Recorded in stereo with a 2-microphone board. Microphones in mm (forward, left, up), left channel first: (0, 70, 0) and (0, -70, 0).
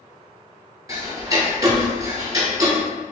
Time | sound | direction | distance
0.9 | ticking | 25° right (ahead or behind) | 1.1 m